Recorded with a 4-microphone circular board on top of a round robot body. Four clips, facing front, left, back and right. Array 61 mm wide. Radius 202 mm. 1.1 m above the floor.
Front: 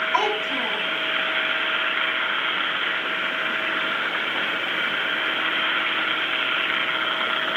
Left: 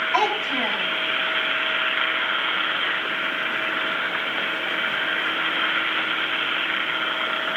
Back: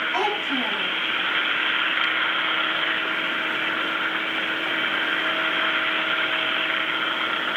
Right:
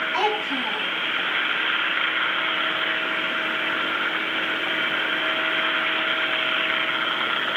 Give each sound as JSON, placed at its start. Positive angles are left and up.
{"t": 0.1, "sound": "a child speaking", "azimuth_deg": 100, "distance_m": 7.5}